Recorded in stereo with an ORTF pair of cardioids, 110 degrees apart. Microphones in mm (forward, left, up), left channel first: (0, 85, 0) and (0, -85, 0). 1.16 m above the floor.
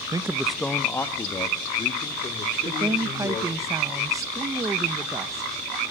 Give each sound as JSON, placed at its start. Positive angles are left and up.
{"t": 0.1, "sound": "a man speaking", "azimuth_deg": -20, "distance_m": 0.8}
{"t": 2.6, "sound": "a woman speaking", "azimuth_deg": -20, "distance_m": 1.0}